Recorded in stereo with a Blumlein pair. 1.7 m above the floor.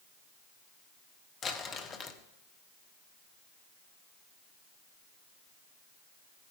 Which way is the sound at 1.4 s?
25° left.